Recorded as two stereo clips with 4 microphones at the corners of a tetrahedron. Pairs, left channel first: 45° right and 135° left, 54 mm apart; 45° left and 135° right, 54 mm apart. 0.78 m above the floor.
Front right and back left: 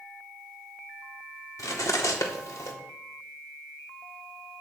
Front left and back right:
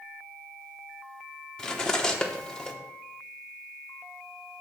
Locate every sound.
1.6 s cutlery clinking: 30° right, 0.8 m